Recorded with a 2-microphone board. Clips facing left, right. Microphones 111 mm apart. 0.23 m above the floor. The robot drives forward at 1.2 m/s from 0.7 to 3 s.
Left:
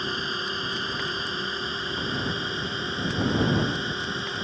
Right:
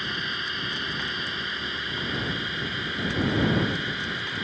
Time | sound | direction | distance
0.0 | a drone | 30° left (ahead or behind) | ?